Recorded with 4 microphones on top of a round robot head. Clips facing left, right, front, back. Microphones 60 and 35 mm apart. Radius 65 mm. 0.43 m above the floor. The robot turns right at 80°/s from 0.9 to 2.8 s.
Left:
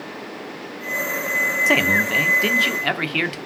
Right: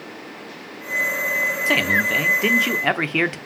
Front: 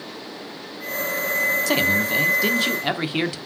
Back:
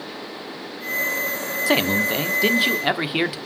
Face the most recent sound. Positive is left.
turn(degrees=-125)